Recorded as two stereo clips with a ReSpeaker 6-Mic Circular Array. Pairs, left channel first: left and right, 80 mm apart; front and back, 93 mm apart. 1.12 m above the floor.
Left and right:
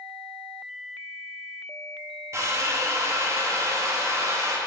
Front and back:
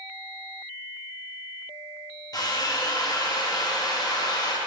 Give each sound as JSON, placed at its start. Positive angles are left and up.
{"t": 2.3, "sound": "a drill", "azimuth_deg": -40, "distance_m": 0.7}